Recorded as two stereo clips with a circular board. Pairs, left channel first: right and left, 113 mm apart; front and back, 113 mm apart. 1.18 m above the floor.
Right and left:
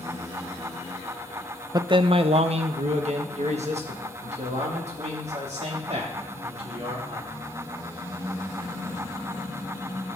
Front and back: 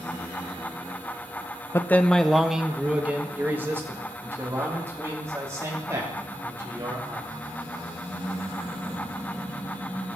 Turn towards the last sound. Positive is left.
turn(degrees=115)